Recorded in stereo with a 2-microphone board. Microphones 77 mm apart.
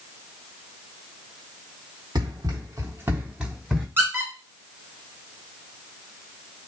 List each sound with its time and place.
2.1 s running footsteps: 70° right (ahead or behind), 1.2 m; by 3.9 s centre (ahead or behind), 1.3 m
4.0 s a squeak: 30° right (ahead or behind), 1.0 m